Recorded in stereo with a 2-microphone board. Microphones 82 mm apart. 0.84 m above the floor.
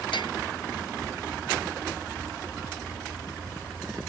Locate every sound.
0.1 s a bell: 75° left (ahead or behind)